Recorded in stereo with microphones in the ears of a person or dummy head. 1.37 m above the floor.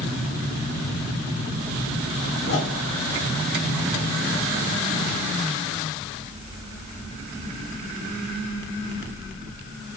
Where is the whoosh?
65° left (ahead or behind), 3 m.